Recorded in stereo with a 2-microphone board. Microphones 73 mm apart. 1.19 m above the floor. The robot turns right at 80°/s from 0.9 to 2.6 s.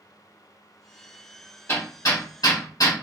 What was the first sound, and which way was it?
Hammering, 35° left (ahead or behind).